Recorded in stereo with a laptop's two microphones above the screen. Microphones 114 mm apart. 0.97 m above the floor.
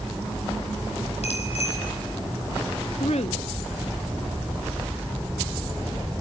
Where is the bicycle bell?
70° left (ahead or behind), 5 m.